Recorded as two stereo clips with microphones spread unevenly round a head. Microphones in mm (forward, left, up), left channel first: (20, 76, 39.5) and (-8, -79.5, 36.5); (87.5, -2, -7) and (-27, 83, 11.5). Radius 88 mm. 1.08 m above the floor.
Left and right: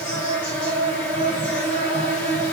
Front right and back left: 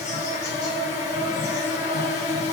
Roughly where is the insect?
Ahead.